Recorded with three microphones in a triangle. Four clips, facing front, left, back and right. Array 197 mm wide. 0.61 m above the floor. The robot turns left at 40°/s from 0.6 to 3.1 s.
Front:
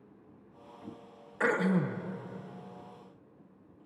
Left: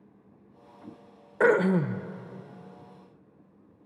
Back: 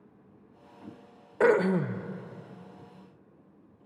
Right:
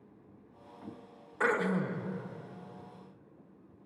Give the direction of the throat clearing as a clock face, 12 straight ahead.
8 o'clock.